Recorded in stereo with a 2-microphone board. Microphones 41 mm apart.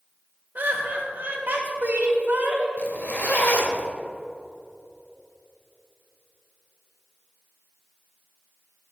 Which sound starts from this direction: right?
Laughter, at 0.6 s.